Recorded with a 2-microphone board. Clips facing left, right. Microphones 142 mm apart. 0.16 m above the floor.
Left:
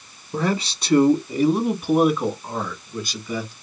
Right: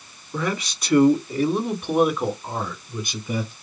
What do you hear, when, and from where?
0.3 s a man speaking: 35° left (ahead or behind), 1.6 m; by 3.5 s 25° right (ahead or behind), 1.7 m